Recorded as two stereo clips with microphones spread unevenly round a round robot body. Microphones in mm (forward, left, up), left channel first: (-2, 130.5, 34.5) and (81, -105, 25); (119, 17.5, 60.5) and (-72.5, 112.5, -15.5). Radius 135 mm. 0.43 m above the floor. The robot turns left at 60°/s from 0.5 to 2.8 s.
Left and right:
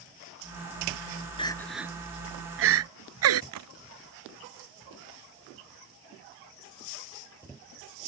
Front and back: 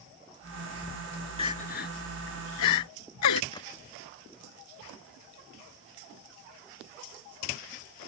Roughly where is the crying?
Ahead left.